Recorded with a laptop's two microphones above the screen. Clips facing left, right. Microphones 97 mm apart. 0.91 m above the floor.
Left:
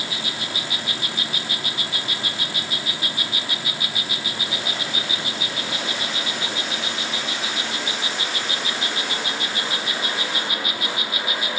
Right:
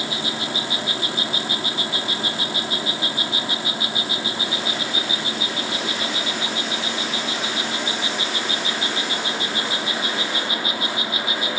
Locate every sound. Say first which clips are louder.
0.0 s an insect: right 4 dB; 30° right (ahead or behind)